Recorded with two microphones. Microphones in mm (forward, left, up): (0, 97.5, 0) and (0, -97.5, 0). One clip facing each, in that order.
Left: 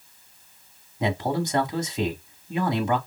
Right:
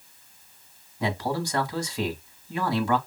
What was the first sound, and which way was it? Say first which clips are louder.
A man speaking: left 3 dB; 20° left (ahead or behind).